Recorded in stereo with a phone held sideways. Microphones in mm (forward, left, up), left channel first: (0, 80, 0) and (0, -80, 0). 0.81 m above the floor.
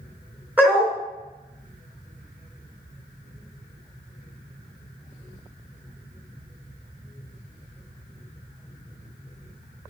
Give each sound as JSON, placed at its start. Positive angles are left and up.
{"t": 0.6, "sound": "a dog barking", "side_deg": -10, "distance_m": 2.5}